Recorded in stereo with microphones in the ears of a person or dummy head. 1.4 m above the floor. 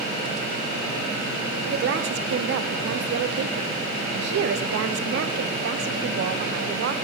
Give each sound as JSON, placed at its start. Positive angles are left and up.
{"t": 1.7, "sound": "a woman speaking", "side_deg": -65, "distance_m": 0.6}